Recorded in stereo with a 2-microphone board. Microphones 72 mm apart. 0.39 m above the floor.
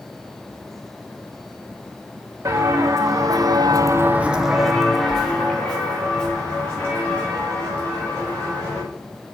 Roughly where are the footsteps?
Right.